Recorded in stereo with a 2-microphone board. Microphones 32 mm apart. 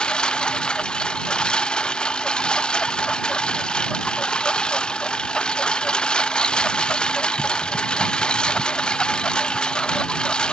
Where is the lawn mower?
30° left (ahead or behind).